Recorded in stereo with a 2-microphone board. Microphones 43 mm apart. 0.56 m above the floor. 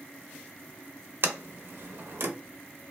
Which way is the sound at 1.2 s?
60° right (ahead or behind).